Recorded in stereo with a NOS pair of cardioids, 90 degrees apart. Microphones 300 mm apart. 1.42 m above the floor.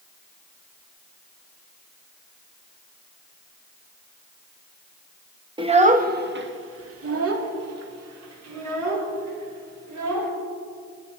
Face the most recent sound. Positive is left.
turn(degrees=-65)